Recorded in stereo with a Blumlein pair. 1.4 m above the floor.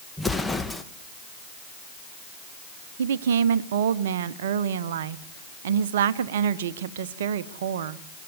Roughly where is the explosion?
Ahead.